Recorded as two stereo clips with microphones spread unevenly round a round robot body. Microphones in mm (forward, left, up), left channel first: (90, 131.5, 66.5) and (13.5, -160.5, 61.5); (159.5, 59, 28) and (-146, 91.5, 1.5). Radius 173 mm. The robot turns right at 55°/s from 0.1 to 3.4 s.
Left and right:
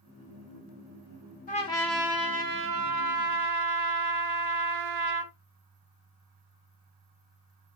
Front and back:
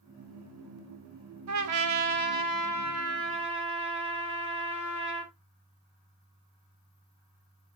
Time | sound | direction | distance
1.5 | a trumpet | 140° left | 1.3 m